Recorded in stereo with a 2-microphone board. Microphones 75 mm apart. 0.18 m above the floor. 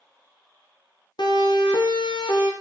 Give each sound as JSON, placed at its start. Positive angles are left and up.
{"t": 1.2, "sound": "a siren", "side_deg": 75, "distance_m": 9.5}